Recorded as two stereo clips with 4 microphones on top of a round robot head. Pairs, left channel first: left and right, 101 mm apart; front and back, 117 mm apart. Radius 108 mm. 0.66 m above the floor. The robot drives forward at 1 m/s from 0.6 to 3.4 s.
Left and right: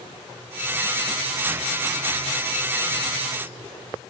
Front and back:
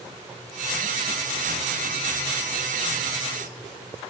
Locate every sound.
Only background noise.